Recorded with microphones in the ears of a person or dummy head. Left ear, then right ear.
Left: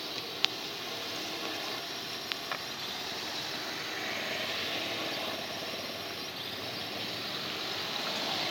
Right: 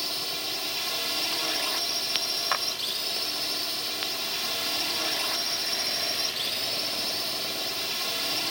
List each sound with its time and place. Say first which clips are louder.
0.0 s a drone: right 3 dB; 50° right (ahead or behind)
2.5 s a clap: right 11 dB; 45° right (ahead or behind)